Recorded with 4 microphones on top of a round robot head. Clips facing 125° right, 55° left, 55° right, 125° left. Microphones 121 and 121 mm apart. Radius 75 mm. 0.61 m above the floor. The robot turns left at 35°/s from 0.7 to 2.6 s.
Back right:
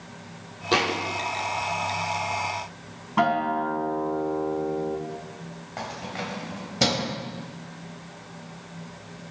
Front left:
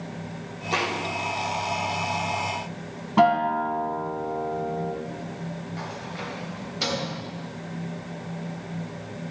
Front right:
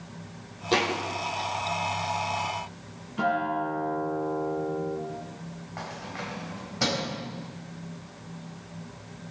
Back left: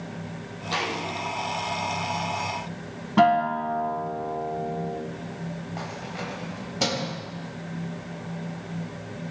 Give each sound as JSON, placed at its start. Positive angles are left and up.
{"t": 0.7, "sound": "a thud", "azimuth_deg": -100, "distance_m": 4.5}
{"t": 3.2, "sound": "a guitar", "azimuth_deg": 120, "distance_m": 1.9}
{"t": 5.8, "sound": "keys jangling", "azimuth_deg": -165, "distance_m": 3.0}